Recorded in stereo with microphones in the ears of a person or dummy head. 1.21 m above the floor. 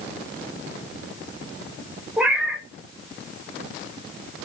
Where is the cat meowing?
5° right (ahead or behind), 0.7 m.